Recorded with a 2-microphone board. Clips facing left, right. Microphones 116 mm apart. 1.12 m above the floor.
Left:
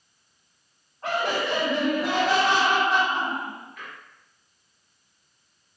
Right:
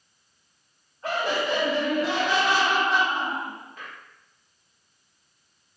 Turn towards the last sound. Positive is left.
turn(degrees=-35)  # may be behind; listen again after turning